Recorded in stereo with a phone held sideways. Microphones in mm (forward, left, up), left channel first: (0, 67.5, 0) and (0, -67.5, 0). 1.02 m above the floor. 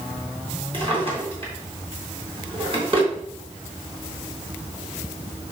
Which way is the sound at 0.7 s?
40° right (ahead or behind).